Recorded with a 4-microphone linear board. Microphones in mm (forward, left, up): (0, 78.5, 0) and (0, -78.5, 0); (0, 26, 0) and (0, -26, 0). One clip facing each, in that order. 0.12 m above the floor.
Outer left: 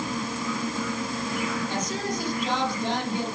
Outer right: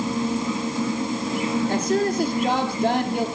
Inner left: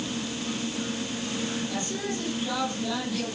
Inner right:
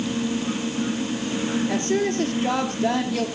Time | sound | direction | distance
1.7 | a woman speaking | 65° right (ahead or behind) | 3.5 m